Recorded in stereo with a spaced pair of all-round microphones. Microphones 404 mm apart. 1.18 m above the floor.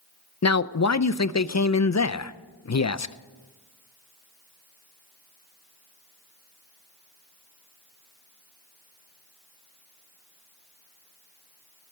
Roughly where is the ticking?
I don't hear ticking.